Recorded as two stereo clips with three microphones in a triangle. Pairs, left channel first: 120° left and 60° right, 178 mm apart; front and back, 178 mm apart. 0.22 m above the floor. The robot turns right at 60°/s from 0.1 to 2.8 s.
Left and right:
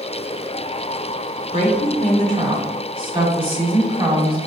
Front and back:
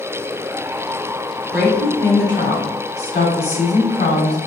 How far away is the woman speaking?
About 1.9 m.